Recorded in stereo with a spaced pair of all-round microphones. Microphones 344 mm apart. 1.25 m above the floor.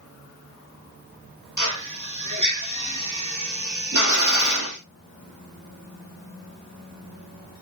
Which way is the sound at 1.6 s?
55° right (ahead or behind).